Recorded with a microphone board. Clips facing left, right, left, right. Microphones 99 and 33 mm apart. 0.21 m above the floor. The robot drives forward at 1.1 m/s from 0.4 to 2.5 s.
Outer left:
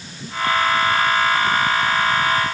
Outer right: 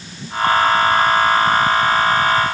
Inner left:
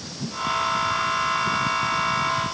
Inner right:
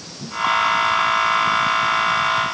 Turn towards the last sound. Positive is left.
No sound to turn to.